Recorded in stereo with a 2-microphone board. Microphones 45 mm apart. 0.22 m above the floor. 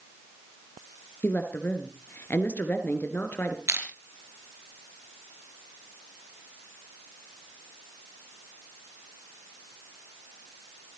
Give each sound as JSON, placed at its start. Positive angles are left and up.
{"t": 1.2, "sound": "a woman speaking", "side_deg": 45, "distance_m": 3.0}
{"t": 3.7, "sound": "crushing", "side_deg": -70, "distance_m": 4.5}